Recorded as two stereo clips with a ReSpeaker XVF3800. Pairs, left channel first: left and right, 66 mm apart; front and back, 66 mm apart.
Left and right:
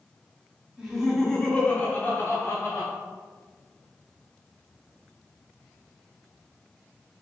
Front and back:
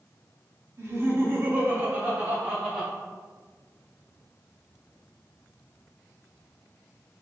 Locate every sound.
0.8 s laughter: 165° right, 1.2 m; by 2.9 s 100° left, 1.5 m